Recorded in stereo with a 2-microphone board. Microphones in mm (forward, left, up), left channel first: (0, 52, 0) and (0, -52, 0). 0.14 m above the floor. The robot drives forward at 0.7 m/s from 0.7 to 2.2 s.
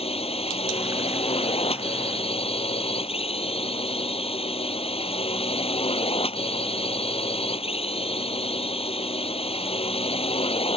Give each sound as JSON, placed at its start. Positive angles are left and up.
{"t": 0.0, "sound": "a drone", "side_deg": 70}